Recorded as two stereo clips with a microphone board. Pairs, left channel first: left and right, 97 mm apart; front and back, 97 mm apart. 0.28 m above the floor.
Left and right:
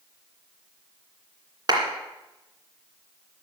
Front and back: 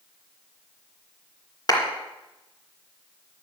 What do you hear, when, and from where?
1.7 s a clap: 45° right, 2.5 m